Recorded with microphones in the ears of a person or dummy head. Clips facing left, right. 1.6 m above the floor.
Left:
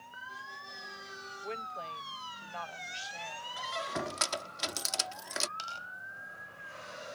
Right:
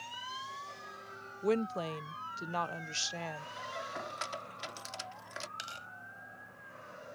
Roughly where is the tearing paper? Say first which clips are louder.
Left 2 dB; right.